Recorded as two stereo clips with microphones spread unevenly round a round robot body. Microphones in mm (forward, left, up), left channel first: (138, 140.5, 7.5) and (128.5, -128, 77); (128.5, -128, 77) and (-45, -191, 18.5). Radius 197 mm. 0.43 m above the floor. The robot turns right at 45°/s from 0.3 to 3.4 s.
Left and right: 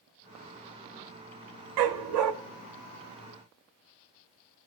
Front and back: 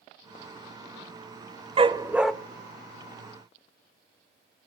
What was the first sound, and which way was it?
A dog barking, 95° right.